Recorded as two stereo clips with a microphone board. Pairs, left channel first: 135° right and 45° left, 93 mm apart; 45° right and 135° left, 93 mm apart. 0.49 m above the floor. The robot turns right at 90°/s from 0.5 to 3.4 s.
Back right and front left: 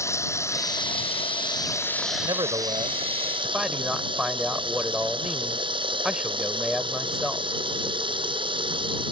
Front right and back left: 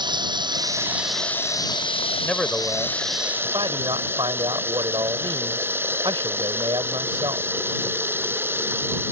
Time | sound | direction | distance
0.0 | running water | 170° left | ?
2.2 | a man speaking | 25° left | ?